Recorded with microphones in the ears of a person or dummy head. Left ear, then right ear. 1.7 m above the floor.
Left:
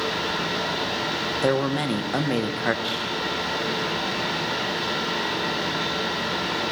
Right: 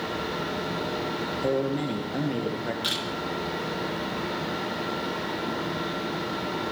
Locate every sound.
0.0 s a fan: 55° left (ahead or behind), 6 m
1.4 s a man speaking: 55° left (ahead or behind), 1.4 m
2.8 s a camera shutter: 30° right (ahead or behind), 4.5 m